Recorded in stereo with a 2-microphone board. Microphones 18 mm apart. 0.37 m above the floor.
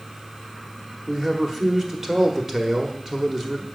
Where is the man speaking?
20° right (ahead or behind), 1.3 m.